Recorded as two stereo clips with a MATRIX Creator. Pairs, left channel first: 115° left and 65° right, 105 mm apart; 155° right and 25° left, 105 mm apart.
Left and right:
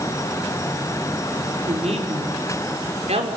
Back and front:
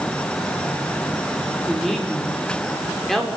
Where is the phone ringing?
I don't hear a phone ringing.